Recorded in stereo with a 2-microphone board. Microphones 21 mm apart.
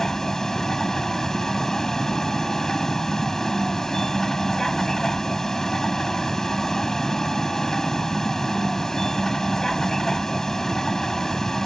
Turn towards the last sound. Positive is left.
turn(degrees=25)  # may be behind; listen again after turning